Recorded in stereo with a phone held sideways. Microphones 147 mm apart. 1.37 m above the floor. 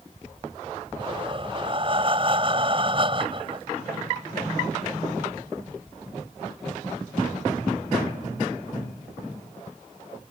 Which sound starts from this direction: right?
Breathing, at 1.0 s.